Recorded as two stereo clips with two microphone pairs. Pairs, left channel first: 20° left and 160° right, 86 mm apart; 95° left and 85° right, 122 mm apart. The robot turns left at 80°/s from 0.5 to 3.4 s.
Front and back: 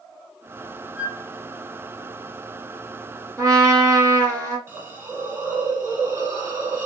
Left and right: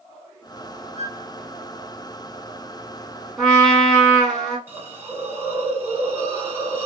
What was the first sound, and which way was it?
A flute, 90° right.